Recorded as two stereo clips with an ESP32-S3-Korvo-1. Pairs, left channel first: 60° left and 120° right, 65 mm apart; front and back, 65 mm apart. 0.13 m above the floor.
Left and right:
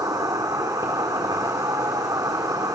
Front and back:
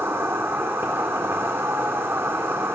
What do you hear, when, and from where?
0.0 s an insect: 130° right, 2 m